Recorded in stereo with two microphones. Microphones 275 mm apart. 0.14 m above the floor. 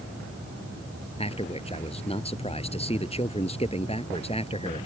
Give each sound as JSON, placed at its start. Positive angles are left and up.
{"t": 1.2, "sound": "a man speaking", "side_deg": 20}